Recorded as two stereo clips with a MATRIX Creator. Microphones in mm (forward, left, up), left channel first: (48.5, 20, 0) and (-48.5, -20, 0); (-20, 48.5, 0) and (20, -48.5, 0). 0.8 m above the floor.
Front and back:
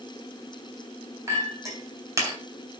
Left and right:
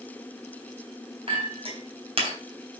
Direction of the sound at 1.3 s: 100° right.